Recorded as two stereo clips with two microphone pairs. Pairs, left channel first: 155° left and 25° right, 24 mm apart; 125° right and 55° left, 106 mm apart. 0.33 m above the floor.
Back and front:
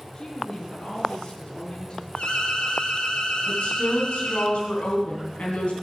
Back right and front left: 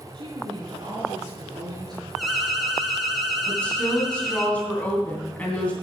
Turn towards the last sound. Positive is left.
turn(degrees=155)